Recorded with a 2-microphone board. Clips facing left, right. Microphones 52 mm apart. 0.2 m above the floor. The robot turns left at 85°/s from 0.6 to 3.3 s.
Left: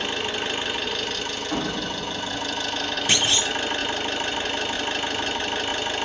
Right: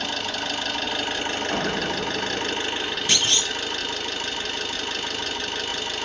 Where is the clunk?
20° left (ahead or behind), 0.5 m; by 3.5 s 10° left (ahead or behind), 0.5 m.